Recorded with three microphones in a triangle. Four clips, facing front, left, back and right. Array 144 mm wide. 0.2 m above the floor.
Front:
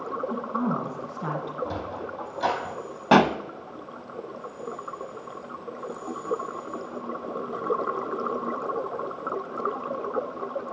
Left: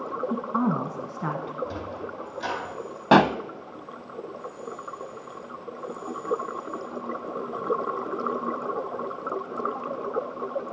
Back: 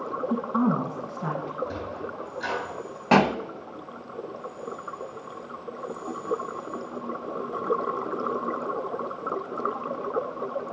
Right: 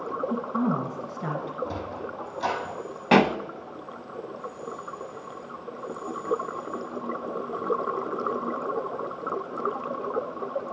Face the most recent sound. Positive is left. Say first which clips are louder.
# left 2 dB, front 2 dB
turn(degrees=70)